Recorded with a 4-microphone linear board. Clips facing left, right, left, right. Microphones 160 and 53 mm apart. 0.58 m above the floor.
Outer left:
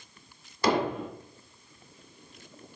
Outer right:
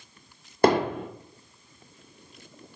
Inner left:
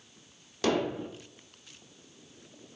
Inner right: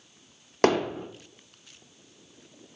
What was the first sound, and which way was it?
Hammering, 55° right (ahead or behind).